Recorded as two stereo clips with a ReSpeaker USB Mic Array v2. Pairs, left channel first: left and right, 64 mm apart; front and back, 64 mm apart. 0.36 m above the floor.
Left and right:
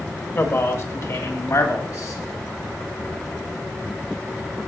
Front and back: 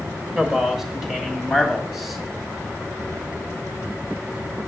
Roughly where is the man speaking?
Left.